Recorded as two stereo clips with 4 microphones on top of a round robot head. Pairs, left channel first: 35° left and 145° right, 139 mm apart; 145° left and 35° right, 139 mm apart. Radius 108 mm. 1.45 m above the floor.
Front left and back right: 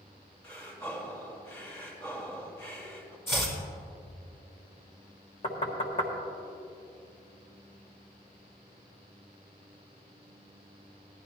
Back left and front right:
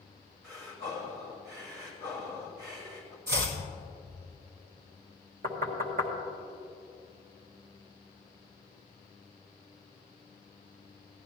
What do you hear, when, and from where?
0.4 s breathing: 35° right, 2.5 m
3.3 s chopping: 40° right, 2 m
5.4 s knocking: 15° right, 1.6 m